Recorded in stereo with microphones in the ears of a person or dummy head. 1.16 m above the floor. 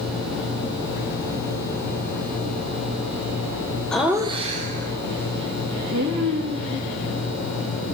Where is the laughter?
Centre (ahead or behind), 0.7 m; by 6.8 s 75° right (ahead or behind), 3 m.